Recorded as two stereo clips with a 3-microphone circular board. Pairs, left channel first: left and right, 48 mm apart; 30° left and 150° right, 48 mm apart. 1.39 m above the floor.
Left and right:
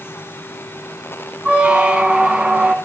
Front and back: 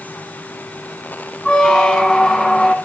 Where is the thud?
I don't hear a thud.